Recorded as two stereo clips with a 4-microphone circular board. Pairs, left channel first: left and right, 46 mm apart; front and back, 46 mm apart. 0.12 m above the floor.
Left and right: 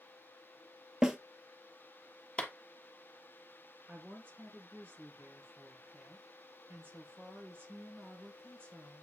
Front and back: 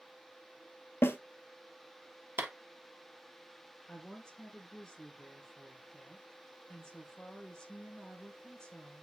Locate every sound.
1.0 s a snare drum: 10° right, 1.1 m
2.4 s a clap: 155° left, 1.7 m
3.9 s a woman speaking: 75° right, 2.5 m